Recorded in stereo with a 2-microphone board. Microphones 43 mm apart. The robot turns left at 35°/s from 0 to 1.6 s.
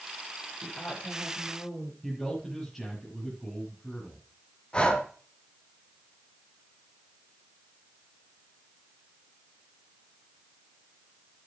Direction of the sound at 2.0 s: 5° left (ahead or behind).